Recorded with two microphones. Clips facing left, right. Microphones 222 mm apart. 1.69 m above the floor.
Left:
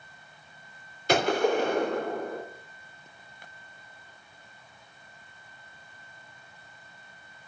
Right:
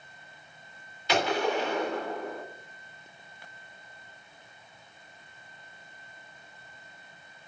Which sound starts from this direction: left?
A gunshot, at 1.1 s.